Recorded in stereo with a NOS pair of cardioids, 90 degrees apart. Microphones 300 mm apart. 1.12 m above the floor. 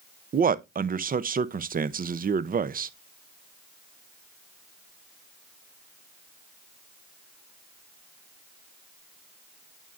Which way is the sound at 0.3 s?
30° right.